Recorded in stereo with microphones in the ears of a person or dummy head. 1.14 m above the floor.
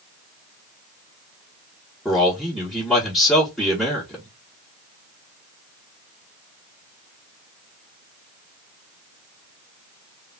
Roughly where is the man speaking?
Centre.